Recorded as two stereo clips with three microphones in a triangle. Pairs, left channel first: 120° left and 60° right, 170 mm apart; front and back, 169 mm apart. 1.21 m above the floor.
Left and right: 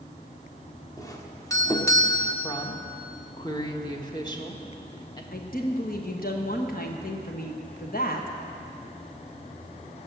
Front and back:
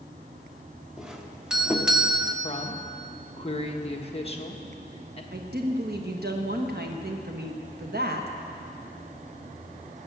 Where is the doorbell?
100° left, 1.0 m.